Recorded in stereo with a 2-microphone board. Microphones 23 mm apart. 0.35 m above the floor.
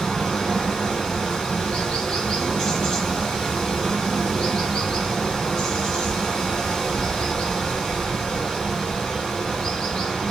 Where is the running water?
30° left (ahead or behind), 2 m.